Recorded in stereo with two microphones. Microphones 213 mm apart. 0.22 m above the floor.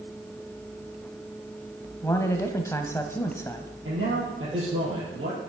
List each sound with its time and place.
2.0 s a man speaking: 15° left (ahead or behind), 1.0 m
3.9 s a man speaking: 75° right (ahead or behind), 6.5 m